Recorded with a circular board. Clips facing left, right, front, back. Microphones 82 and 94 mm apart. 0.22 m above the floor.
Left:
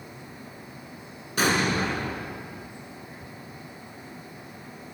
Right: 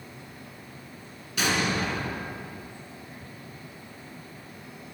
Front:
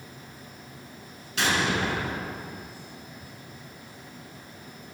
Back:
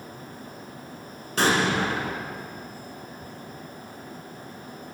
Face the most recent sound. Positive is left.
turn(degrees=135)